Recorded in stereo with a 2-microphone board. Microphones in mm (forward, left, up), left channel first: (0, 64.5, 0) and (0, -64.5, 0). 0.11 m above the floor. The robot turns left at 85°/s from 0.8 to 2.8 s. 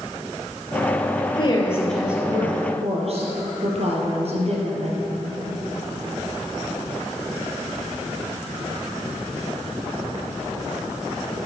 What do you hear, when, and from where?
1.3 s a woman speaking: 55° left, 2.5 m; by 5.0 s 70° right, 2.5 m